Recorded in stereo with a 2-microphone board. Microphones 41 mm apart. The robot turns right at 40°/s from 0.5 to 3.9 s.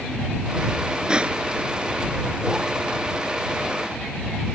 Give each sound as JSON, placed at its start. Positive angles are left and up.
{"t": 1.1, "sound": "crushing", "side_deg": -20}